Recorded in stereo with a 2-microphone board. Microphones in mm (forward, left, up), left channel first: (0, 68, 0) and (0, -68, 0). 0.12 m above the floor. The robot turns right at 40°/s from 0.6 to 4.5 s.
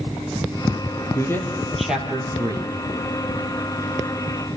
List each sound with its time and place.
1.1 s a man speaking: 25° left (ahead or behind), 3 m; by 2.7 s 35° right (ahead or behind), 3 m